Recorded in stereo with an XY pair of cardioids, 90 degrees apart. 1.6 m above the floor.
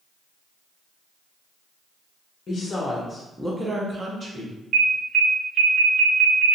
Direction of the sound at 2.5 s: 55° left.